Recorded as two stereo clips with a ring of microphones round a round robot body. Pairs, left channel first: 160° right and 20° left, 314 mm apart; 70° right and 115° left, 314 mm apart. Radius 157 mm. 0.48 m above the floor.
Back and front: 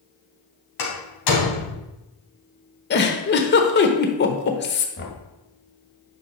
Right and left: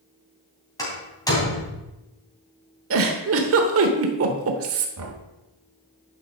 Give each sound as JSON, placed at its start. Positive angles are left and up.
{"t": 0.8, "sound": "a door slam", "azimuth_deg": -145, "distance_m": 3.0}
{"t": 2.9, "sound": "a giggle", "azimuth_deg": 150, "distance_m": 1.1}
{"t": 5.0, "sound": "knocking", "azimuth_deg": 150, "distance_m": 1.5}